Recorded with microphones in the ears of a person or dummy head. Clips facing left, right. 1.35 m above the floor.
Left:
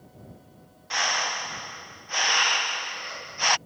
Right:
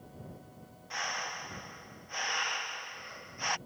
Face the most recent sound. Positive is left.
turn(degrees=85)